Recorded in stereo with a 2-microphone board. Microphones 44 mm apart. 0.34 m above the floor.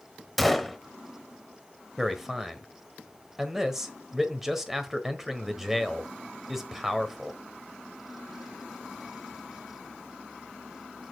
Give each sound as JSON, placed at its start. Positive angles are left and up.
{"t": 0.4, "sound": "a gunshot", "side_deg": 0, "distance_m": 0.9}
{"t": 2.0, "sound": "a man speaking", "side_deg": -10, "distance_m": 1.2}